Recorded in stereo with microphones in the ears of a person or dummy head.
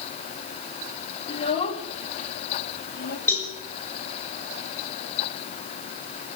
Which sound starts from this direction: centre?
A cowbell, at 3.3 s.